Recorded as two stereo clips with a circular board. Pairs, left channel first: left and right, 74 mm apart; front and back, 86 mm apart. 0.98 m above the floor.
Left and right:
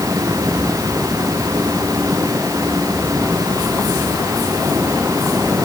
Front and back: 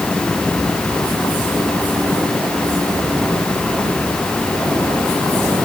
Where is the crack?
I don't hear a crack.